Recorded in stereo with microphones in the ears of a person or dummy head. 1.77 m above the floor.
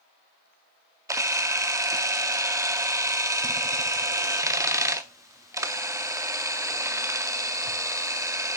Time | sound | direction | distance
1.1 | a camera shutter | 15° right (ahead or behind) | 0.5 m